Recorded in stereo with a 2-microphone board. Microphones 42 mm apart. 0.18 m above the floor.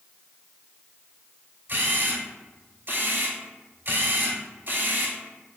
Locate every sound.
1.7 s a camera shutter: 50° right (ahead or behind), 0.9 m